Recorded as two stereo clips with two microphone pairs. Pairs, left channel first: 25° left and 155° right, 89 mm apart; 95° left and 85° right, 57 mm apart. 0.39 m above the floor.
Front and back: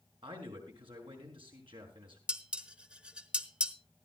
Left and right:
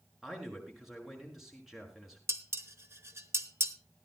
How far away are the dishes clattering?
About 1.0 m.